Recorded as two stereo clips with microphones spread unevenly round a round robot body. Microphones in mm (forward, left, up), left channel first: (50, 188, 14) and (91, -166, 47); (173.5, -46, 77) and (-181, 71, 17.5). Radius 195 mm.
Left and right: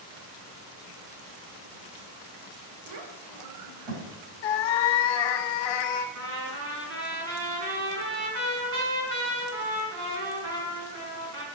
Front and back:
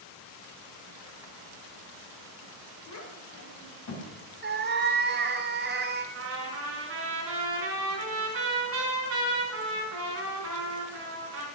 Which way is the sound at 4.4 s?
95° left.